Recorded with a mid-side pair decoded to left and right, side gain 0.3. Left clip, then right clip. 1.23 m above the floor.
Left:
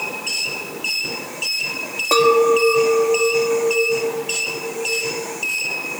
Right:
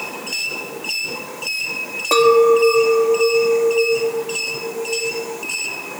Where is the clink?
10° right, 1.5 m.